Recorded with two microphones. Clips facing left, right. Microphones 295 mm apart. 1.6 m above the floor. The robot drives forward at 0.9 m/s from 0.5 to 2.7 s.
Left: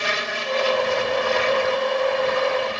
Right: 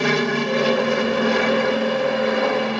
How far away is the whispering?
No whispering in this recording.